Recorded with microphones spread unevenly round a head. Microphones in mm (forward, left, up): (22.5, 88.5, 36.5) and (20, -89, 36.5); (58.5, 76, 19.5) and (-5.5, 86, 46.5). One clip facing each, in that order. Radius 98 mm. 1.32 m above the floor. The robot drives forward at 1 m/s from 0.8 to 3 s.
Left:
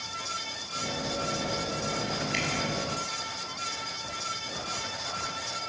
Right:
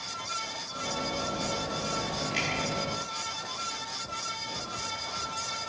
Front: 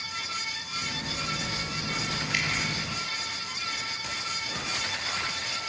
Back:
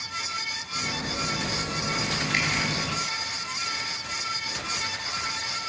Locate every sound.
2.3 s dripping: 120° left, 8 m